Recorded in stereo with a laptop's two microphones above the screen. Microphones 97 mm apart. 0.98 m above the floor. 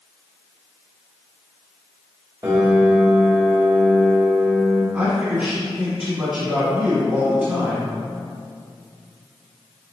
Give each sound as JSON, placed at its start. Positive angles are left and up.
{"t": 2.4, "sound": "a piano", "side_deg": -35, "distance_m": 1.6}
{"t": 4.9, "sound": "a man speaking", "side_deg": -25, "distance_m": 1.9}